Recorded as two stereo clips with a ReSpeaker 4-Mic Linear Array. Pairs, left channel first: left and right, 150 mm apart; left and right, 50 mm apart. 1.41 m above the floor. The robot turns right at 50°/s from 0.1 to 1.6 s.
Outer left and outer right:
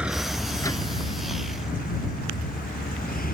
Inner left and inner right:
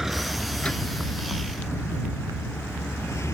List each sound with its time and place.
0.0 s a vehicle: 5° right (ahead or behind); by 3.3 s 65° left (ahead or behind)